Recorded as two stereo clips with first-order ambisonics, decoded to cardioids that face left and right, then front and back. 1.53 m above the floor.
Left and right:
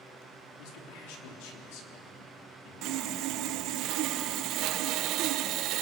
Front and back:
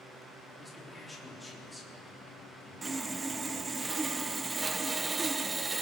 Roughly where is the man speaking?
Left.